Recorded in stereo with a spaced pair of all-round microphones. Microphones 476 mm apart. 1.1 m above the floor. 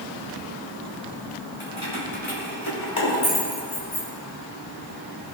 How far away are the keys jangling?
About 3.5 m.